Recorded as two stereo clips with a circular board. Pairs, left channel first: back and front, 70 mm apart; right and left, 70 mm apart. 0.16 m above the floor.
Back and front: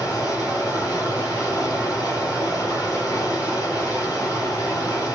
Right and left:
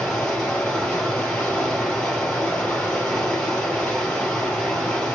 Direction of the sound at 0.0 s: 165° right.